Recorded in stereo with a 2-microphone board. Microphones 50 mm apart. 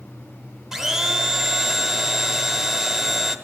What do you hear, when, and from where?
0.7 s a blender: 10° right (ahead or behind), 1.9 m